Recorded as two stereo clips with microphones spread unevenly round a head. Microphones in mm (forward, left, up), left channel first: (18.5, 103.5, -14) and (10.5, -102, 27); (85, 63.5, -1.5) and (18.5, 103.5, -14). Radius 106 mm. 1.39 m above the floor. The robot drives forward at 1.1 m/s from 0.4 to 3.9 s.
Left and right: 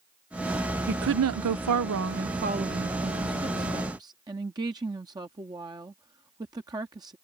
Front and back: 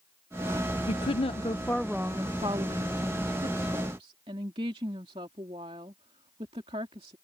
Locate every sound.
0.9 s a woman speaking: 45° right; by 7.2 s 165° right